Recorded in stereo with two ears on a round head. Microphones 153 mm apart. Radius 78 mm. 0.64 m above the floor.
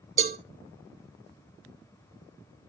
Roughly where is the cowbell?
Right.